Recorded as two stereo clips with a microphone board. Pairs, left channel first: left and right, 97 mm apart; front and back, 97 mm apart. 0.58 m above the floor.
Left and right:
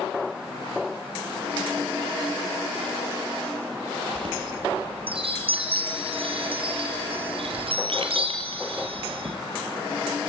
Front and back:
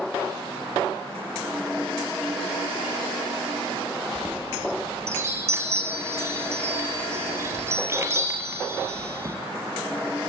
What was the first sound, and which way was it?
A chime, 115° right.